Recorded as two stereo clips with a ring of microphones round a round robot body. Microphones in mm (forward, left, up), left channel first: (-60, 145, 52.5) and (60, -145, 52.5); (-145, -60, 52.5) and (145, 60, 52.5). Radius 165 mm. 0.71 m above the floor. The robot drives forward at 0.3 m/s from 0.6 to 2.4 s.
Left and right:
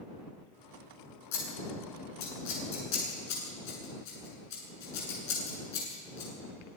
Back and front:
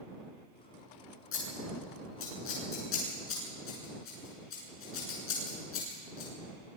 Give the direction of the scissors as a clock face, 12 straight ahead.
7 o'clock.